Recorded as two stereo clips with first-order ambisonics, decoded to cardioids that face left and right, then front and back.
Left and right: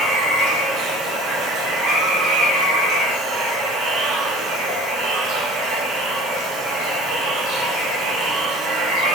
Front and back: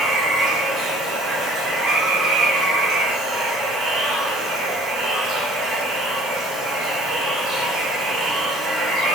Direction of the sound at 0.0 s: 125° right.